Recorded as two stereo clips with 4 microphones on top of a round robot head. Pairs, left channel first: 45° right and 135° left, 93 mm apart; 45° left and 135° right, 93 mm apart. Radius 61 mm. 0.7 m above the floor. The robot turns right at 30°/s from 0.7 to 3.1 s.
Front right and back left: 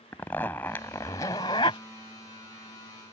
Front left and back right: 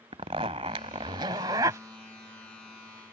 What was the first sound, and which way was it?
A zipper, 115° right.